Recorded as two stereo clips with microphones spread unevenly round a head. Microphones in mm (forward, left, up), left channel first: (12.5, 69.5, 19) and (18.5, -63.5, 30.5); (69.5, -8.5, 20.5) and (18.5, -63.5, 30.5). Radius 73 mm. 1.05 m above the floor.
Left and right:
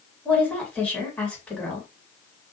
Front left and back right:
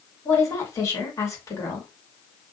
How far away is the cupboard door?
No cupboard door in this recording.